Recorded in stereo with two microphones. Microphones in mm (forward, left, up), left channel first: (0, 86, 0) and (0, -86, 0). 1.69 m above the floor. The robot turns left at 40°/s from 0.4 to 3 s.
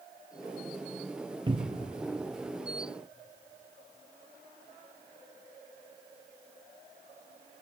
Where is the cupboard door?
25° right (ahead or behind), 1.0 m; by 2.0 s 45° right (ahead or behind), 1.0 m.